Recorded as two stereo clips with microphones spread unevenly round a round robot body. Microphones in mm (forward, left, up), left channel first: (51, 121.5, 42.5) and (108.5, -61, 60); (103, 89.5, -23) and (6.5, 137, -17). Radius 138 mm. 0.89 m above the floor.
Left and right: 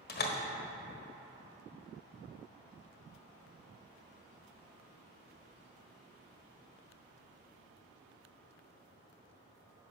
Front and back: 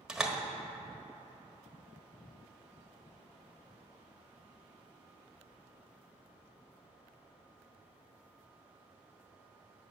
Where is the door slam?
70° left, 1.4 m.